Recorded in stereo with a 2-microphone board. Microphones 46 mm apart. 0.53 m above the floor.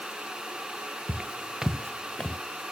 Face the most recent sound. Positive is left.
turn(degrees=25)  # may be behind; listen again after turning